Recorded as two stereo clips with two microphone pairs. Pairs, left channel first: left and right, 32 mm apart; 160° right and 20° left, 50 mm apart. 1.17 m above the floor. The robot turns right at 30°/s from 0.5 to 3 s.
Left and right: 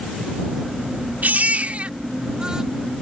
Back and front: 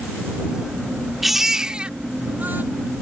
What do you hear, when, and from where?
1.2 s a baby crying: 65° right; by 2.6 s 25° right